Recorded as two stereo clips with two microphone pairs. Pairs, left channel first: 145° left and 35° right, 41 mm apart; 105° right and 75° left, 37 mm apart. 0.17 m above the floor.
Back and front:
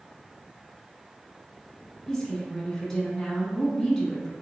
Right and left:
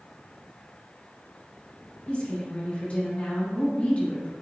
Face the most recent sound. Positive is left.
turn(degrees=-135)